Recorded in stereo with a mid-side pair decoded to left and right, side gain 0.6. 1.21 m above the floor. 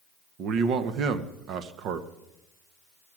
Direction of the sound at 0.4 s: 60° right.